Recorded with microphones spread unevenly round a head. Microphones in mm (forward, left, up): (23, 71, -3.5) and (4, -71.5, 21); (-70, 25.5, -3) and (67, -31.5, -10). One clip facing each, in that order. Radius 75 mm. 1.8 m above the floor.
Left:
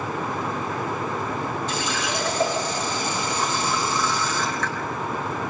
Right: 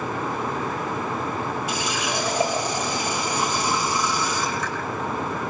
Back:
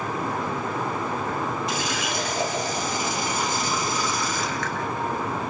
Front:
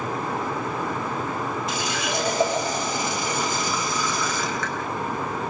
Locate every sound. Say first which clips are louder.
1.7 s a running tap: even, front 1 dB; 20° right, 6 m